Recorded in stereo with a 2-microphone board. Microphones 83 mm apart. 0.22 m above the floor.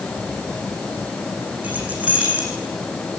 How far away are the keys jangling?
About 7.5 m.